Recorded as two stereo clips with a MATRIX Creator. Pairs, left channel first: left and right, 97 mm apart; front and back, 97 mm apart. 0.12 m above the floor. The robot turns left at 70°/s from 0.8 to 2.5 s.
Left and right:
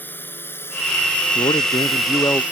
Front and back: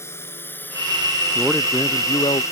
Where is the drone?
40° left; by 2.5 s 25° right.